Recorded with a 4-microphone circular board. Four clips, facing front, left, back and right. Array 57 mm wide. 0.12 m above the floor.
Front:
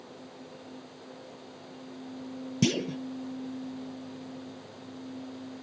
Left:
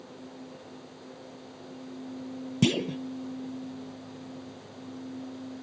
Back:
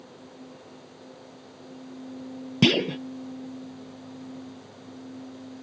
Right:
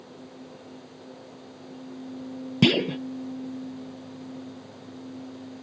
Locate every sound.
2.6 s a clunk: 145° right